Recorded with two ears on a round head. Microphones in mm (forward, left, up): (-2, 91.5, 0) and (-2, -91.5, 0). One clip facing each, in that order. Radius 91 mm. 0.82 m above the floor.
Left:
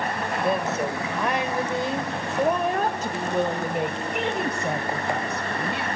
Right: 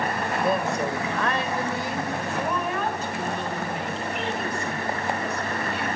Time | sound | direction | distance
0.2 | a woman speaking | 5° right (ahead or behind) | 3 m